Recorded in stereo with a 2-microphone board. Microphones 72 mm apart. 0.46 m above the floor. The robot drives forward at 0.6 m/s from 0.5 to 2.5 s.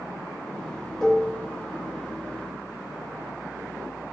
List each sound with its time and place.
1.0 s dishes clattering: centre (ahead or behind), 3.5 m